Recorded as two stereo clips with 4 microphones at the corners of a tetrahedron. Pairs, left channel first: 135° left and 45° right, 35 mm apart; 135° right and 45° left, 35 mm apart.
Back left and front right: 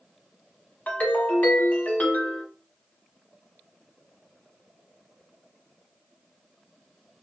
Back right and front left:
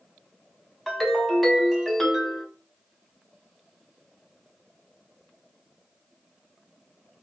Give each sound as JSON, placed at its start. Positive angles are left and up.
{"t": 0.9, "sound": "a ringtone", "azimuth_deg": 140, "distance_m": 1.0}